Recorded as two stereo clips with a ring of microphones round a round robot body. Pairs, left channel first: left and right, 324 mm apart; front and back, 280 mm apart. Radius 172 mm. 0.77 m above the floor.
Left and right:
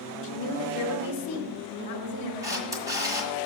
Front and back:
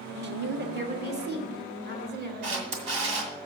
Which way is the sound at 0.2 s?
135° left.